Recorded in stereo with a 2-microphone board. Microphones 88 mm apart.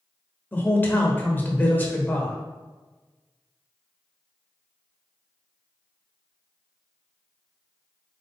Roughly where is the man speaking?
Left.